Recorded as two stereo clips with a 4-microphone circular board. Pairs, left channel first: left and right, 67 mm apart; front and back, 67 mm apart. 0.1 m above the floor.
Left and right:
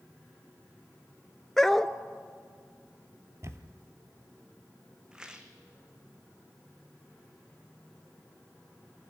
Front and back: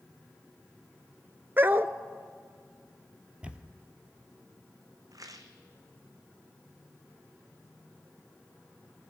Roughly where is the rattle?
Behind.